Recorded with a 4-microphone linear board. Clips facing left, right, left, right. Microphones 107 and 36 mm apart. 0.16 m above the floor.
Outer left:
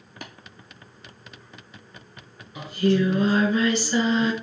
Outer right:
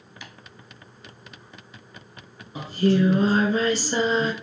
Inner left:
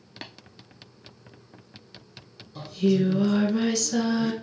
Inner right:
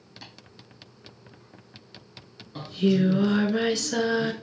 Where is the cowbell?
I don't hear a cowbell.